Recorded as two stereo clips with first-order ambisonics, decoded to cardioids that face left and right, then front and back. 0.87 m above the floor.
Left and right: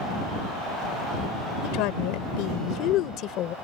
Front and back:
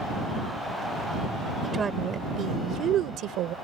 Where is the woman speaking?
105° left; by 3.5 s 140° left.